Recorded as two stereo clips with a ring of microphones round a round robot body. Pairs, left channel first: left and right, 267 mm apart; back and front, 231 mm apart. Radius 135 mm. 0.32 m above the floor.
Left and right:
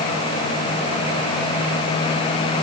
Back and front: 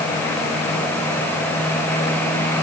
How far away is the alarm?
No alarm in this recording.